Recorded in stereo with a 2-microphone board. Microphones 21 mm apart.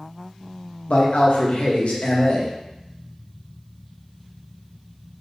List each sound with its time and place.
0.9 s a man speaking: 80° left, 0.9 m